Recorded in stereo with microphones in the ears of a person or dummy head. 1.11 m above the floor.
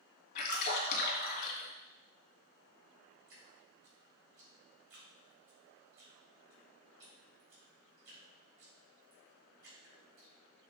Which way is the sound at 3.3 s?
70° right (ahead or behind).